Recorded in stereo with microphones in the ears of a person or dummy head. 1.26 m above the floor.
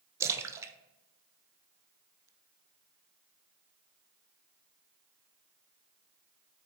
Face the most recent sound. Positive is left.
turn(degrees=-15)  # may be behind; listen again after turning